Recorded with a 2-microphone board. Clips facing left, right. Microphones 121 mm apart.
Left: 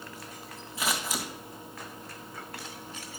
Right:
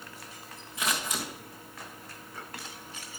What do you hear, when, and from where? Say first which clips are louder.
0.8 s scissors: left 1 dB; 5° left (ahead or behind), 2 m